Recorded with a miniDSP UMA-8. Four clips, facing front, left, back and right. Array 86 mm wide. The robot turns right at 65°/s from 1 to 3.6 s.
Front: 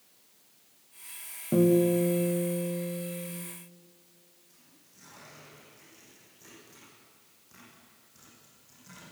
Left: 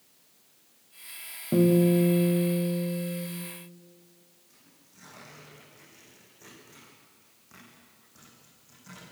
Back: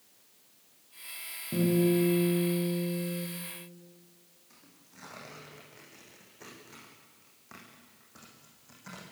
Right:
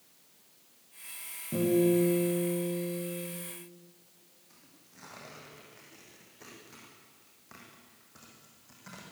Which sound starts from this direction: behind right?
Tearing paper, at 4.5 s.